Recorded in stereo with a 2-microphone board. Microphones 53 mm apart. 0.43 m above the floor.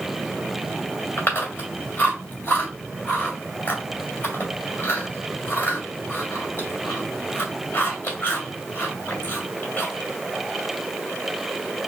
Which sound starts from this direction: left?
Chewing, at 1.2 s.